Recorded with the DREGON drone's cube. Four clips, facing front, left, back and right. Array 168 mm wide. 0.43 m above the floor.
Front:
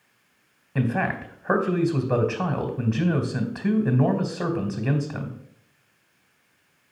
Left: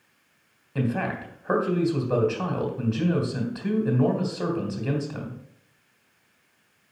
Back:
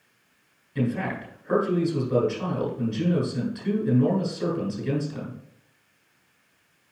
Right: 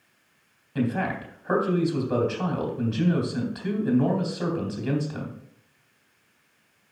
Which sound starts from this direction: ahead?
A man speaking, at 0.8 s.